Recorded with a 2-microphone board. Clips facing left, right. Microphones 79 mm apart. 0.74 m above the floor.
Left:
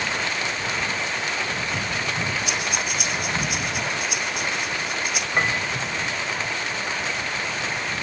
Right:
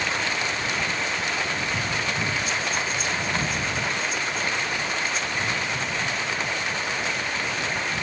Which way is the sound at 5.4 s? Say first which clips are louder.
Left 4 dB; 80° left.